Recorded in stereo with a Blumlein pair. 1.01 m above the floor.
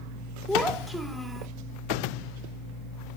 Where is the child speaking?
5° right, 2 m.